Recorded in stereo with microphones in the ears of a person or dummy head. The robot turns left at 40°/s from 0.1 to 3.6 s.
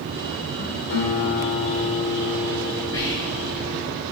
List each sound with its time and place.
0.9 s a guitar: 80° left, 5 m; by 3.8 s 30° right, 5 m
2.9 s whispering: 25° left (ahead or behind), 3 m; by 3.6 s centre (ahead or behind), 3 m